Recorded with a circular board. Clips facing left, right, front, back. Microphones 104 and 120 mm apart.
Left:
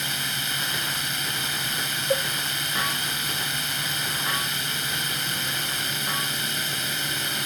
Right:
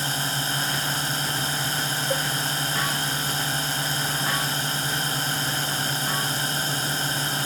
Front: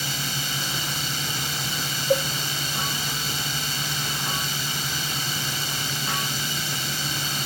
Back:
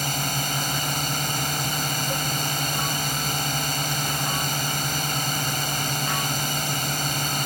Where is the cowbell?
10° left.